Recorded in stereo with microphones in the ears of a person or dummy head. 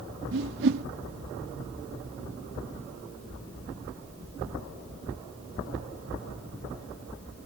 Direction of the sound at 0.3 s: 65° right (ahead or behind).